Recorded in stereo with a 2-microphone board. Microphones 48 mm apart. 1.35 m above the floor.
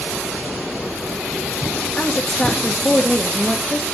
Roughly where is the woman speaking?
Centre.